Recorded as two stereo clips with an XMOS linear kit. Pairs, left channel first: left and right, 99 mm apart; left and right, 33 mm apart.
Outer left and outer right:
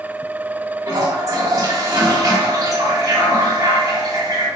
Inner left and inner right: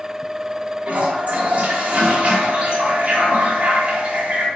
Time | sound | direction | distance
0.9 | a toilet flushing | 35° right (ahead or behind) | 1.2 m